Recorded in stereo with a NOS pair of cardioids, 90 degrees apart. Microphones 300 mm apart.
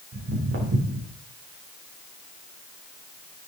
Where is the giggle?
No giggle in this recording.